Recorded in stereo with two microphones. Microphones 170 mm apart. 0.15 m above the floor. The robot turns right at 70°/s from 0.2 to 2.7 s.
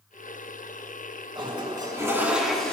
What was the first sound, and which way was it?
A toilet flushing, 30° right (ahead or behind).